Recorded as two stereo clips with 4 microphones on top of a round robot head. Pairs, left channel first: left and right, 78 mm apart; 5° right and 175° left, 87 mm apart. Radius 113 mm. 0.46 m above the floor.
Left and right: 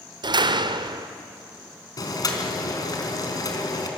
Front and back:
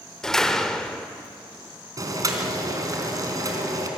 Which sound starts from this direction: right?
A door slam, at 0.2 s.